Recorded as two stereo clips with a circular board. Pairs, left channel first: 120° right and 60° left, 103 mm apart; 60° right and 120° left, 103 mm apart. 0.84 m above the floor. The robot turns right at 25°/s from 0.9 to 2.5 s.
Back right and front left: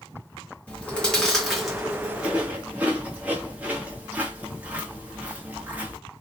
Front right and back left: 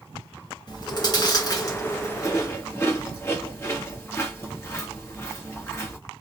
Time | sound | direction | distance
0.7 | chewing | 50° right | 1.0 m